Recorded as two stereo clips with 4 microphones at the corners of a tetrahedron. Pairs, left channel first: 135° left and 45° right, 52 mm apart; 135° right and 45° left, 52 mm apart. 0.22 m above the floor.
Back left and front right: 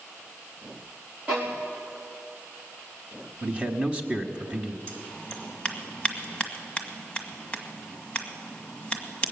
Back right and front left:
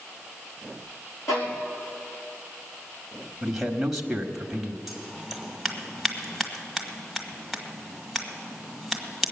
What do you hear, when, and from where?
1.3 s a violin: 120° right, 3.5 m
3.4 s a man speaking: 30° right, 1.0 m
4.9 s scissors: 145° left, 1.6 m